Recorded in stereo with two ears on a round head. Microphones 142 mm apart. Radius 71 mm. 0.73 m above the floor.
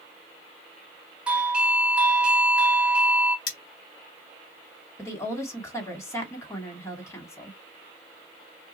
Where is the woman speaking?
20° left (ahead or behind), 1.7 m.